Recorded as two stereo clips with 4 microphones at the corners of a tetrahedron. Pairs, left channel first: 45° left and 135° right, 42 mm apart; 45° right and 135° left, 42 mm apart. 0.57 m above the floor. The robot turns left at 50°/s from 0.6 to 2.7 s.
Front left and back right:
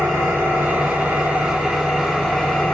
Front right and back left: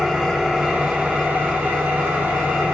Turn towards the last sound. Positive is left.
turn(degrees=100)